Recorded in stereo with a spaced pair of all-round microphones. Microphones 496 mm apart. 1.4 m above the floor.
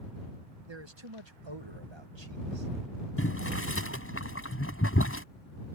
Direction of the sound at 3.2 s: 25° left (ahead or behind).